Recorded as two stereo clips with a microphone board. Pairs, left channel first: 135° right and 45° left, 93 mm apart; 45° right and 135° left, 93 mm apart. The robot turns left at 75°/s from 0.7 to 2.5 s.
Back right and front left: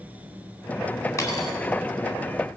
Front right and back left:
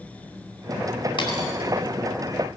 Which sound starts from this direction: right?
A dropped coin, at 1.2 s.